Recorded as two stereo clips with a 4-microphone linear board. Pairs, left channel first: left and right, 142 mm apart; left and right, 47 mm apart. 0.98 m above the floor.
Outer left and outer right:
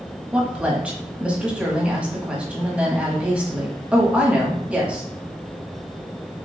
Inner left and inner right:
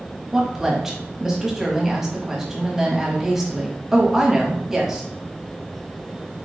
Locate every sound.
0.3 s a woman speaking: 10° right (ahead or behind), 1.2 m